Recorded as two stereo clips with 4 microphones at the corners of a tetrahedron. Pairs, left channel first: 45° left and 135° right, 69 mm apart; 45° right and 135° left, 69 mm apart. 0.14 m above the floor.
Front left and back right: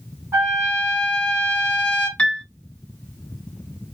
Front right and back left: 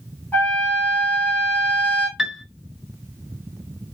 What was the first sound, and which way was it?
A trumpet, 100° right.